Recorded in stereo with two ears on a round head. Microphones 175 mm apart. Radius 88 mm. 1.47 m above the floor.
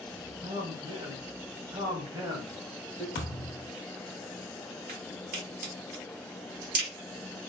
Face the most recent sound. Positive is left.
turn(degrees=-45)  # may be behind; listen again after turning